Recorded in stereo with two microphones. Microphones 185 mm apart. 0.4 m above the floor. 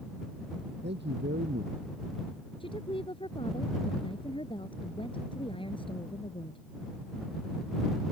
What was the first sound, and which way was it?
A man speaking, 70° right (ahead or behind).